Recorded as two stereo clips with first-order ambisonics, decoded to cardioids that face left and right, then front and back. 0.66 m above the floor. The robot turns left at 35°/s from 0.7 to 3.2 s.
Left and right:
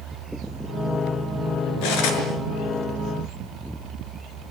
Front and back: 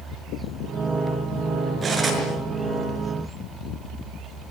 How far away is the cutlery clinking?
About 6 m.